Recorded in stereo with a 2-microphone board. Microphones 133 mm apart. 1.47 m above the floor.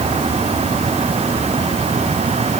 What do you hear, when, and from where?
Only background noise.